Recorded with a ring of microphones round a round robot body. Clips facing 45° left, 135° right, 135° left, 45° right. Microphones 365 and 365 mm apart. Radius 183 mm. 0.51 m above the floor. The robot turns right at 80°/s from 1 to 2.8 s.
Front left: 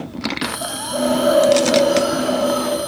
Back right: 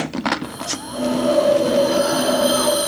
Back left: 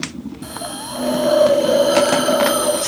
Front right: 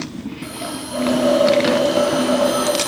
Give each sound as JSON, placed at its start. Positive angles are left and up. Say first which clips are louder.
{"t": 0.4, "sound": "a hiss", "louder": "front left 2 dB, front right 3 dB", "azimuth_deg": 60, "distance_m": 3.0}